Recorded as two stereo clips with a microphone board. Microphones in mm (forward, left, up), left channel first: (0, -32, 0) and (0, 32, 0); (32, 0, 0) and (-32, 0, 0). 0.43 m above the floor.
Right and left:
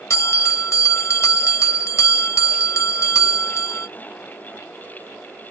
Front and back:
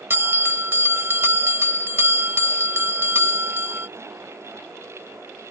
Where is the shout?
No shout in this recording.